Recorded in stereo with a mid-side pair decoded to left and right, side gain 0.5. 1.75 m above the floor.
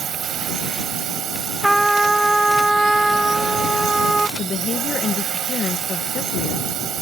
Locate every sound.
0.0 s a drone: 55° right
1.6 s a trumpet: 5° right
4.4 s a woman speaking: 50° left